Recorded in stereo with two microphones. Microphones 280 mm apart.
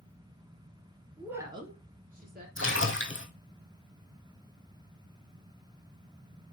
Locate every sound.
1.2 s a woman speaking: centre (ahead or behind), 1.4 m; by 2.5 s 35° right (ahead or behind), 2.5 m
2.6 s a splash: 45° left (ahead or behind), 1.2 m